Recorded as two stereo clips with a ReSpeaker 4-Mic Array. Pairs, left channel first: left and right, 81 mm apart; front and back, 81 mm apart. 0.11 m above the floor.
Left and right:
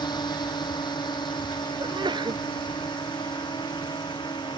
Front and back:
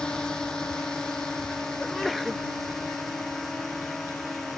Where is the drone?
80° left; by 4.6 s 85° left.